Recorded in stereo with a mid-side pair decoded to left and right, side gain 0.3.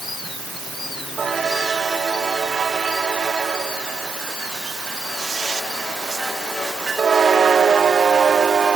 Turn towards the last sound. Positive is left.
No sound to turn to.